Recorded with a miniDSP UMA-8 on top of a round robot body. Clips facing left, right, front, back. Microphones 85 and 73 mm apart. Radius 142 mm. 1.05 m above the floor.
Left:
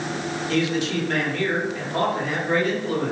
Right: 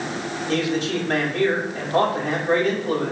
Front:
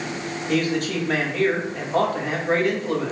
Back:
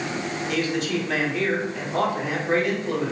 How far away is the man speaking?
About 2.5 m.